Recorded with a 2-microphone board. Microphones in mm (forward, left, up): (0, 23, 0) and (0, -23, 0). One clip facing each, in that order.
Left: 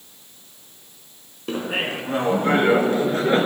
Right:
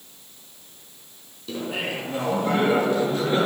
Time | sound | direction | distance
1.5 | laughter | 45° left (ahead or behind) | 3 m